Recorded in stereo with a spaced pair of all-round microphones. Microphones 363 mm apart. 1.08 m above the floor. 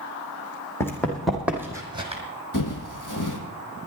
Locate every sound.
0.8 s running footsteps: 5° left (ahead or behind), 2.5 m; by 2.2 s 20° right (ahead or behind), 2 m
2.5 s footsteps: 55° left (ahead or behind), 1.9 m